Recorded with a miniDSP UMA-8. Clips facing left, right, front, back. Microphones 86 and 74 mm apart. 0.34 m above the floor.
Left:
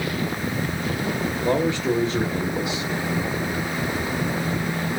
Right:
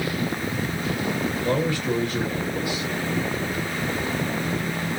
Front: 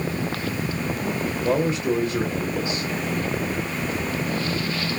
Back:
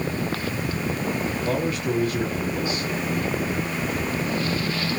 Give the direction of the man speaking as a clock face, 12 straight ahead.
11 o'clock.